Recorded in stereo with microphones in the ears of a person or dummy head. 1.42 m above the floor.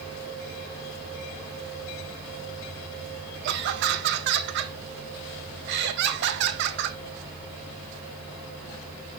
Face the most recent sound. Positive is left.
turn(degrees=-60)  # may be behind; listen again after turning